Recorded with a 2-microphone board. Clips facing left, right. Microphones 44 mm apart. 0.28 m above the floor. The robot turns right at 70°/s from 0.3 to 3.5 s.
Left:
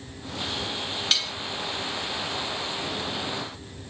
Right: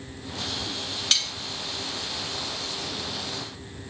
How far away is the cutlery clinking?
About 0.7 m.